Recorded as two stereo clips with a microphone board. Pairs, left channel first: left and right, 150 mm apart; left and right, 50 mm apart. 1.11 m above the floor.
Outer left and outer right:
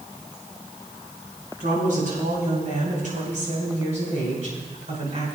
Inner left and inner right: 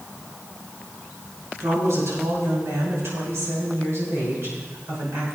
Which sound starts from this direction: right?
A woman speaking, at 1.6 s.